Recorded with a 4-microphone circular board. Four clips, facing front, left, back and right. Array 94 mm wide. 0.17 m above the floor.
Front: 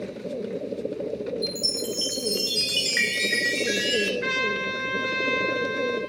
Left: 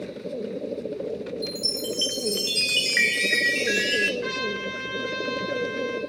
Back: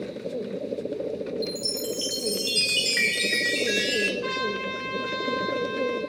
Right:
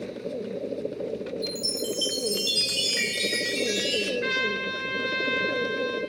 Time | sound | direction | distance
1.4 | a chime | 75° left | 1.8 m
4.2 | a trumpet | 25° right | 2.5 m